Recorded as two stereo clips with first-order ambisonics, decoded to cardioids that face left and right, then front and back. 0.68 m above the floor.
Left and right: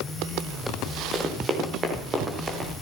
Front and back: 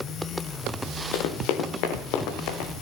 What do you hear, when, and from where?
1.1 s running footsteps: 20° right, 3.5 m; by 2.7 s 25° right, 4.5 m